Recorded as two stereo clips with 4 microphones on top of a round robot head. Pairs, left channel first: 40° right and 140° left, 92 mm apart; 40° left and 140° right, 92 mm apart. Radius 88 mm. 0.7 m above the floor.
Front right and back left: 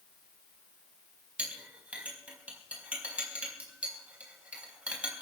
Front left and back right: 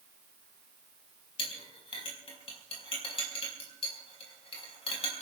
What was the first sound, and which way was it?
A clink, 65° left.